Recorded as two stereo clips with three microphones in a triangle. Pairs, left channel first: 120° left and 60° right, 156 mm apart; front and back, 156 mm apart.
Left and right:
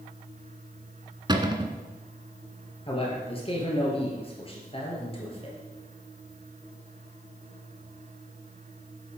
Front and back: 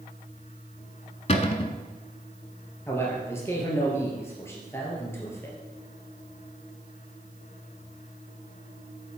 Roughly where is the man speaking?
Left.